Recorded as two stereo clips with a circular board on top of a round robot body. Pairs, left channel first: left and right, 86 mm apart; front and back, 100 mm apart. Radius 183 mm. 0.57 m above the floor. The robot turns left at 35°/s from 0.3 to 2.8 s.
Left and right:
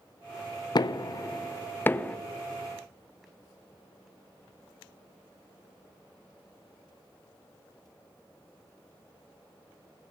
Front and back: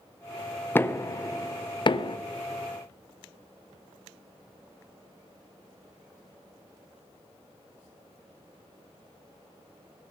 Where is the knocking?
65° left, 0.6 m; by 2.2 s 15° left, 0.6 m.